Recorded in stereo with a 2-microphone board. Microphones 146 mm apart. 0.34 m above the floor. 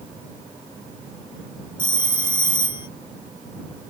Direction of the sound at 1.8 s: 35° left (ahead or behind).